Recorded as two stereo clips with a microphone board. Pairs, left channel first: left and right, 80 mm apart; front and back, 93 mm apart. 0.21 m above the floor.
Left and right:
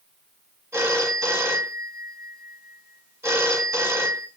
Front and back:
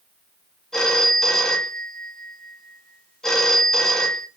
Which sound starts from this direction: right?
A phone ringing, at 0.7 s.